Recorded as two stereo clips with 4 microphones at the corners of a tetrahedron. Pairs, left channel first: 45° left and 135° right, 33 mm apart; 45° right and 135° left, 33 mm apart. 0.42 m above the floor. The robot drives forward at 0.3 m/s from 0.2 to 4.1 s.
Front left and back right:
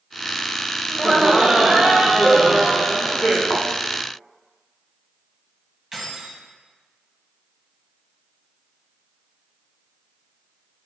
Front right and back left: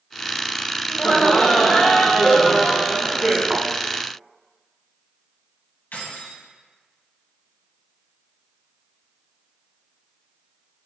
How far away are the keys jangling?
About 2 m.